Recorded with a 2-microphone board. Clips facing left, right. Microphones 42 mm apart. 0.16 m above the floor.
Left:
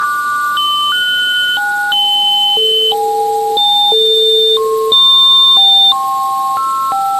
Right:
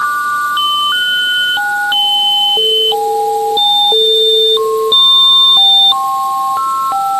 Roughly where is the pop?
No pop in this recording.